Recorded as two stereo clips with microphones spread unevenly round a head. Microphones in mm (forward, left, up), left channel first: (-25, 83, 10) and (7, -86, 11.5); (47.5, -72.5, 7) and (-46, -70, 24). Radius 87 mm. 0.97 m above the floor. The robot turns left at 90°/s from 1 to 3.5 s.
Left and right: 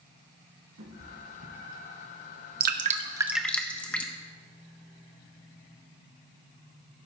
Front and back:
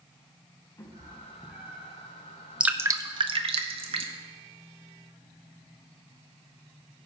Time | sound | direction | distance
0.8 | a cat meowing | 55° right | 3.5 m
2.6 | dripping | 95° right | 0.9 m